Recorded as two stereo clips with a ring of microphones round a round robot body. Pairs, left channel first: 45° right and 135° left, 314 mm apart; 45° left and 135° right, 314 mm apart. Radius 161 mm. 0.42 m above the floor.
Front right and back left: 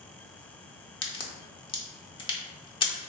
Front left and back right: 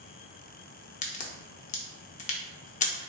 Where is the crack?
10° left, 0.8 m.